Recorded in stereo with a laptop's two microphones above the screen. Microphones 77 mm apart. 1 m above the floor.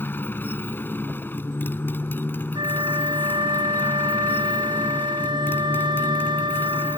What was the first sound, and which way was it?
A motorcycle, 25° left (ahead or behind).